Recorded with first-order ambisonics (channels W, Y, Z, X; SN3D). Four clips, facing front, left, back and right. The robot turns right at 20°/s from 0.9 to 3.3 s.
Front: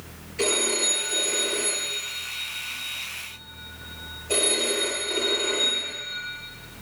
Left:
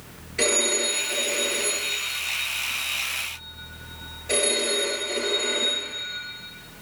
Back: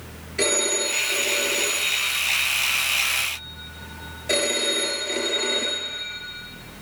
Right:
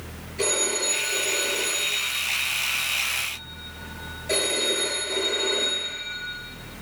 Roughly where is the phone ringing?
Behind left.